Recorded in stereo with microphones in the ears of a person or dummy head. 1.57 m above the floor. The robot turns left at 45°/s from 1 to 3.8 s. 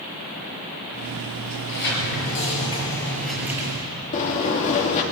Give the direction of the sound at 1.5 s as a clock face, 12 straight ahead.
9 o'clock.